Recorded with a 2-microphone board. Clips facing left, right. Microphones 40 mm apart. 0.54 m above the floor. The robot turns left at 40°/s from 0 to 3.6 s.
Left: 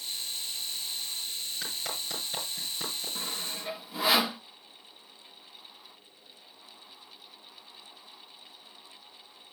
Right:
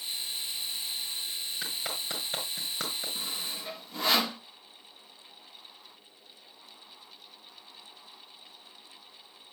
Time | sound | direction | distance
1.6 | a clap | 5° right (ahead or behind) | 5.5 m
3.1 | sawing | 20° left (ahead or behind) | 0.5 m